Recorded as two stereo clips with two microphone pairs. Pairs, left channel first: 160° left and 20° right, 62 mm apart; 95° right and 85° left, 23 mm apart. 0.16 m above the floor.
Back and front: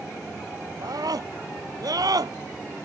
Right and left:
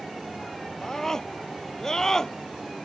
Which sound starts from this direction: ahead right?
A scream, at 0.8 s.